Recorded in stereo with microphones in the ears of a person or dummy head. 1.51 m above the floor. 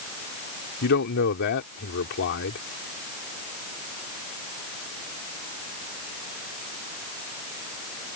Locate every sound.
0.8 s a man speaking: 60° left (ahead or behind)